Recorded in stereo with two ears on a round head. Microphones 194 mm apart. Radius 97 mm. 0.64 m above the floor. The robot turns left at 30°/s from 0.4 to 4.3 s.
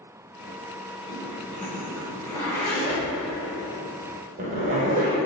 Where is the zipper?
50° left (ahead or behind), 2.5 m; by 5.2 s 35° right (ahead or behind), 2.5 m.